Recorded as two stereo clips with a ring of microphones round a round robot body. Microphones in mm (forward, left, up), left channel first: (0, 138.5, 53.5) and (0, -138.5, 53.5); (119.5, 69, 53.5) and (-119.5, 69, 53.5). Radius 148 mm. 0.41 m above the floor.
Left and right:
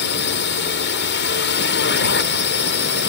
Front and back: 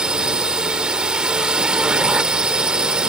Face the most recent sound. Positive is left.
turn(degrees=95)